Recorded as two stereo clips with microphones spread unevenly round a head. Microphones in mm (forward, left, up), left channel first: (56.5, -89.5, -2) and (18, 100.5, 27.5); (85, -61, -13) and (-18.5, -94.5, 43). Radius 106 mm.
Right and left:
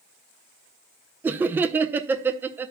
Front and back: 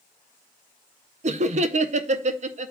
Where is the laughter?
170° right, 0.5 m.